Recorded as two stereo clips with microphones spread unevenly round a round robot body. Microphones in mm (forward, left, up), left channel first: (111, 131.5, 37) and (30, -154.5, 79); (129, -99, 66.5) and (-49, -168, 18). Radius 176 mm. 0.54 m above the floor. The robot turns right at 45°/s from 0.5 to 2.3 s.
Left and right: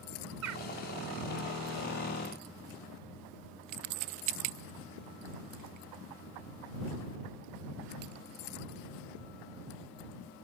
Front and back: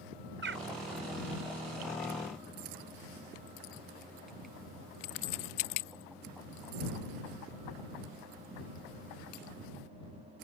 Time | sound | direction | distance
0.4 | a bird | 150° right | ?